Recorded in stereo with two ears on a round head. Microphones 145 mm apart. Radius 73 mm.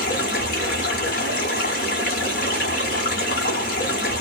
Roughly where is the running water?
Left.